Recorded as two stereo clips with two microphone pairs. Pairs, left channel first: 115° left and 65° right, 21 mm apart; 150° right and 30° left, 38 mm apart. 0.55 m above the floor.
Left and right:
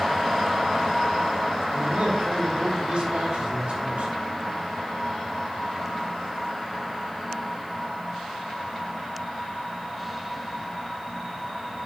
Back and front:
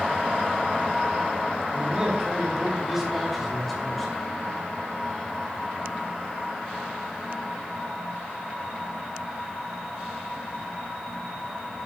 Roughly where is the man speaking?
Ahead right.